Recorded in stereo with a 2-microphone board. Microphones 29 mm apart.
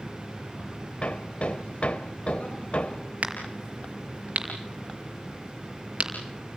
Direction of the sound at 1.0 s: 45° left (ahead or behind).